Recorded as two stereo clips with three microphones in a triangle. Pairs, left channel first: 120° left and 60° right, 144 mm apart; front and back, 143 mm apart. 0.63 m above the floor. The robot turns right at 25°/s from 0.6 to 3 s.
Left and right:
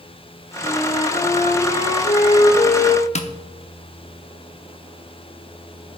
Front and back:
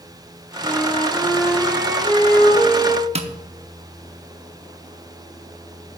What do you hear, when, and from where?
0.6 s a flute: 80° left, 1.9 m; by 3.0 s 140° left, 1.9 m
3.1 s tapping: 145° left, 0.8 m